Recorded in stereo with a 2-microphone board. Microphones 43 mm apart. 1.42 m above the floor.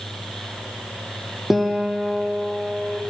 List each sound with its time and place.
1.5 s a guitar: 5° right (ahead or behind), 1.0 m